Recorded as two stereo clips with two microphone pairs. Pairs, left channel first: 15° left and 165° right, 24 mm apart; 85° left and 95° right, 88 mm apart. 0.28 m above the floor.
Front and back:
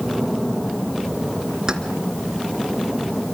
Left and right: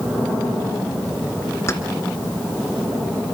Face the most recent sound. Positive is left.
turn(degrees=140)